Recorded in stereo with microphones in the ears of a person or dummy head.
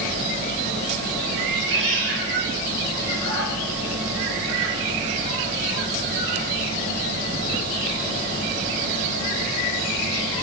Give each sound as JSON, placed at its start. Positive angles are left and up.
{"t": 1.4, "sound": "a cat meowing", "side_deg": -60, "distance_m": 3.0}